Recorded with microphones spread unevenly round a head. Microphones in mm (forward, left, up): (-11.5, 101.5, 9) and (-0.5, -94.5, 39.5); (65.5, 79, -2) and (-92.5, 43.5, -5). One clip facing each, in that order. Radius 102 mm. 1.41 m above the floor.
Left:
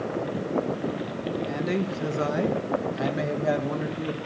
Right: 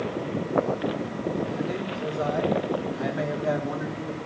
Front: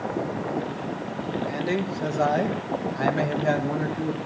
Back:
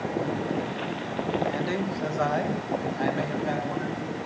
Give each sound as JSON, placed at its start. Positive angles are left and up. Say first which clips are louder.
{"t": 1.5, "sound": "a man speaking", "louder": "left 2 dB, front 1 dB", "azimuth_deg": 85, "distance_m": 1.4}